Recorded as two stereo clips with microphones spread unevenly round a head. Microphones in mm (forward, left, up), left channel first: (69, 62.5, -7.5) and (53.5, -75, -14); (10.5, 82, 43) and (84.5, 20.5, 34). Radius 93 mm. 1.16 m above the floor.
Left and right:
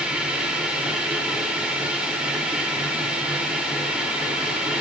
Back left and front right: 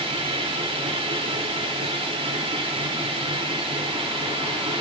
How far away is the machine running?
About 2 m.